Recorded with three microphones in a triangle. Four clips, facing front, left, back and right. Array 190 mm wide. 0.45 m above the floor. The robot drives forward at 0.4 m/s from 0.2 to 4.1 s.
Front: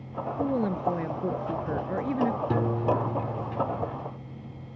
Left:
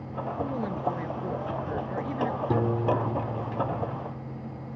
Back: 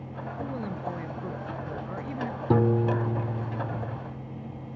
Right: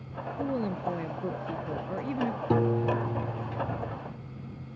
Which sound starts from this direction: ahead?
A woman speaking, at 0.4 s.